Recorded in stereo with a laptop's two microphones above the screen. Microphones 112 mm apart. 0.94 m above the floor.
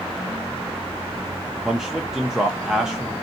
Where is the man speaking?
5° right (ahead or behind), 0.6 m.